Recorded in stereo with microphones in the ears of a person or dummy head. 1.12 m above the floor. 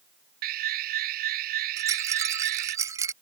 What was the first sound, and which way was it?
An alarm, 50° right (ahead or behind).